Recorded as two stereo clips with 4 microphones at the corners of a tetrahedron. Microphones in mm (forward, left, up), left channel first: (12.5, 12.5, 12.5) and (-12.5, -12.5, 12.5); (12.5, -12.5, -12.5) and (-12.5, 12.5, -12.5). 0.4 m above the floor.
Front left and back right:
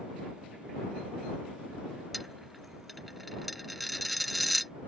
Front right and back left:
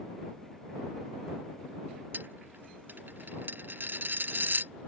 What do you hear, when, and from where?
2.1 s a dropped coin: 140° left